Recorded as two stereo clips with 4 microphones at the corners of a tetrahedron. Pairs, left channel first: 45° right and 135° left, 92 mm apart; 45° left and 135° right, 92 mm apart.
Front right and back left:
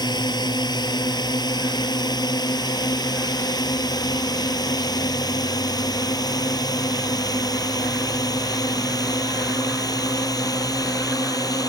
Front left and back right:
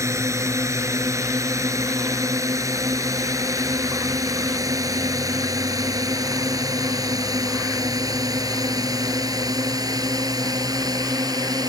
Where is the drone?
80° right; by 11.7 s 90° right.